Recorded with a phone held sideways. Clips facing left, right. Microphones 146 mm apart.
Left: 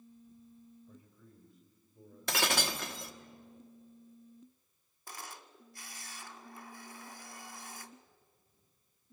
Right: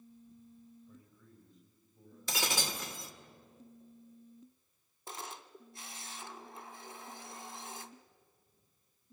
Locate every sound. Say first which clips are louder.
0.9 s a man speaking: left 1 dB; 55° left (ahead or behind), 4 m; by 3.3 s 65° left (ahead or behind), 5 m
2.3 s breaking glass: left 4 dB; 65° left (ahead or behind), 1.3 m
5.1 s a camera shutter: right 3 dB; 25° right (ahead or behind), 1.1 m